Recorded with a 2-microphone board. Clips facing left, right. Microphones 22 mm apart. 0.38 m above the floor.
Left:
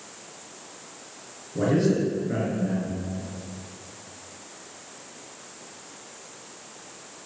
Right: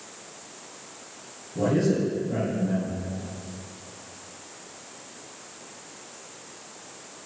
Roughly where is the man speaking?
Left.